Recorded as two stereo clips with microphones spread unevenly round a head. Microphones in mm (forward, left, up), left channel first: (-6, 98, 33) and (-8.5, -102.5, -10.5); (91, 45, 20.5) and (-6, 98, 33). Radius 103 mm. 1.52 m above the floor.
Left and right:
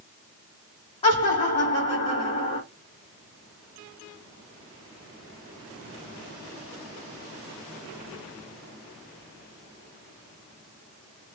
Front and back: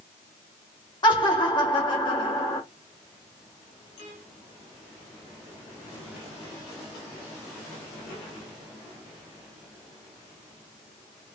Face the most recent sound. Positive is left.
turn(degrees=20)